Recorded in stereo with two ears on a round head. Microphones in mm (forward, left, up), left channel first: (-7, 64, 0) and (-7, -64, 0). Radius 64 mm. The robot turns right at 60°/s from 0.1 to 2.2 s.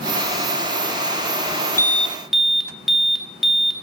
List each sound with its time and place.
1.8 s an alarm: 20° left (ahead or behind), 1.0 m; by 3.7 s centre (ahead or behind), 1.0 m